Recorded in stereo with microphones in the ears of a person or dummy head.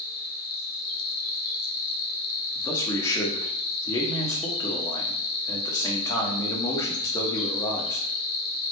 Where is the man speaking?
15° left (ahead or behind), 0.7 m.